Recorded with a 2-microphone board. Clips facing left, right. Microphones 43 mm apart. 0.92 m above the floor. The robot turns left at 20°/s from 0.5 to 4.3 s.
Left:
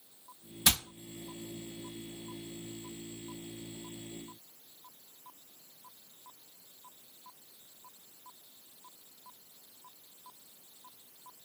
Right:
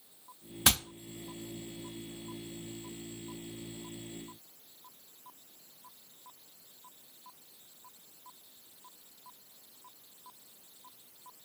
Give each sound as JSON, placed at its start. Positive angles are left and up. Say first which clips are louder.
{"t": 0.7, "sound": "hammering", "louder": "right 1 dB", "side_deg": -55, "distance_m": 1.6}